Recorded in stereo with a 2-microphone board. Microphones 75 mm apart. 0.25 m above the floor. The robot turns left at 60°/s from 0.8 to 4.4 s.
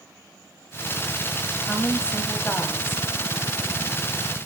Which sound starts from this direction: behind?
A woman speaking, at 1.6 s.